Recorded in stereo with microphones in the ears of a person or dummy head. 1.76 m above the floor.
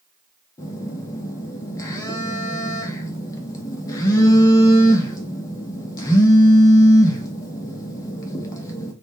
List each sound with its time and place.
0.6 s a phone buzzing: 20° left (ahead or behind), 0.6 m